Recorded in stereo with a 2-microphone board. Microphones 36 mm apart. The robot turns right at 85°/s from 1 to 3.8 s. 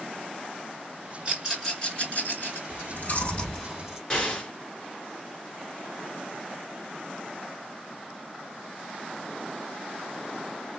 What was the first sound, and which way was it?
A rattle, 25° right (ahead or behind).